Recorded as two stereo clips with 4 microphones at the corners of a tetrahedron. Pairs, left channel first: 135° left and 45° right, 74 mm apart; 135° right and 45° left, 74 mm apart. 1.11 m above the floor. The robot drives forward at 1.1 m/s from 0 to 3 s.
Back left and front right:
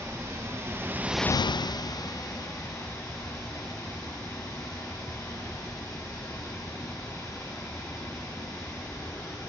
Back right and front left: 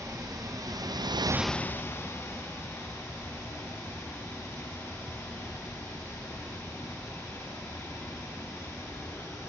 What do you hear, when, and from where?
0.0 s running water: 5° left, 1.5 m; by 9.5 s 175° left, 1.9 m